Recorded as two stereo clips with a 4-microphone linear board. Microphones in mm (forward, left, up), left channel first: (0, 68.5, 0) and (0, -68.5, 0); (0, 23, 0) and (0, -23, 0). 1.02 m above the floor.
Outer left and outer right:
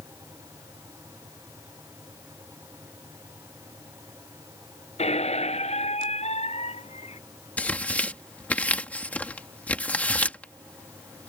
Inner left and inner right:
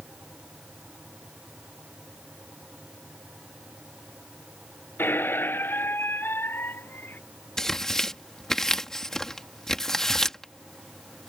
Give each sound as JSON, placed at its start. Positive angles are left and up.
{"t": 5.0, "sound": "a squeak", "side_deg": 55}
{"t": 7.6, "sound": "tearing paper", "side_deg": 10}